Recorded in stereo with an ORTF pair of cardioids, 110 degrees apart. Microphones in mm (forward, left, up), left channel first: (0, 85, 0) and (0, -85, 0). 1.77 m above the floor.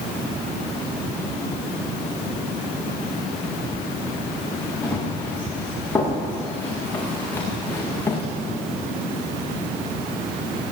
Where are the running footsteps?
10° left, 9.5 m; by 8.2 s 15° left, 7.5 m.